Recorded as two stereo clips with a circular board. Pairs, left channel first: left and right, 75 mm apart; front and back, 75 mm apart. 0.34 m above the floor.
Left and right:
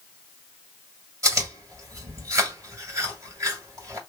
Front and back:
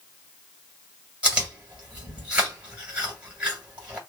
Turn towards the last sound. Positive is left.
turn(degrees=-110)